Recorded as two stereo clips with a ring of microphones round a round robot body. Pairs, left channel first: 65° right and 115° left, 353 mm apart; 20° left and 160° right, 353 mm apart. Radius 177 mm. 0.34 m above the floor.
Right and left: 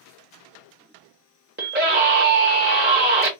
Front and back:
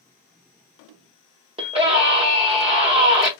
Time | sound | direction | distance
1.6 | a scream | 145° left | 1.4 m